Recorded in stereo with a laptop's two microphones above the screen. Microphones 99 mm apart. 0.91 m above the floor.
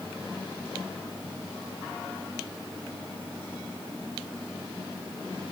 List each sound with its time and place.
Only background noise.